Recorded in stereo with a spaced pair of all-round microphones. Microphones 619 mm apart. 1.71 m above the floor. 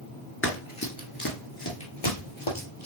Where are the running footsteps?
20° left (ahead or behind), 1.7 m; by 2.9 s 45° left (ahead or behind), 3 m.